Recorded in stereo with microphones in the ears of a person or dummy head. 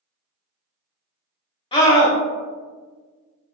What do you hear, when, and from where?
1.7 s a scream: 25° left (ahead or behind), 0.7 m